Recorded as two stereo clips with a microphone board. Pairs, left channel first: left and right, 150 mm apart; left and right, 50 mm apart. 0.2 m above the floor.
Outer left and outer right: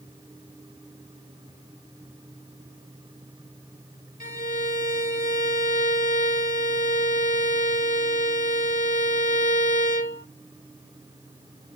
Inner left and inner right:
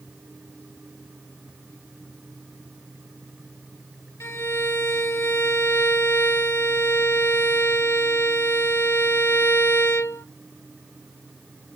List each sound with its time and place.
4.2 s a violin: 65° left (ahead or behind), 0.6 m